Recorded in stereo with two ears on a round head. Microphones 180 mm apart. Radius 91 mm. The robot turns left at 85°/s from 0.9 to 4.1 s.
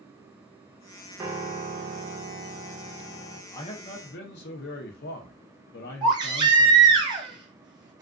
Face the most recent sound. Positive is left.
turn(degrees=-25)  # may be behind; listen again after turning